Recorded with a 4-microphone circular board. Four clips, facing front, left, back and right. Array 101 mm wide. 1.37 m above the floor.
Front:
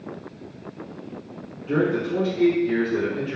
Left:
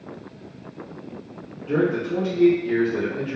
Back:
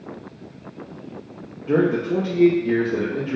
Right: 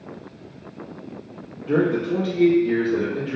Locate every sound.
1.7 s a man speaking: 155° right, 0.7 m